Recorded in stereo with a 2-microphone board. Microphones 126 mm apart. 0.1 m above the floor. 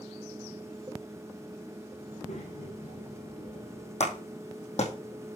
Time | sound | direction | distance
2.0 | a child speaking | 80° left | 4 m
4.0 | a clap | 65° left (ahead or behind) | 3.5 m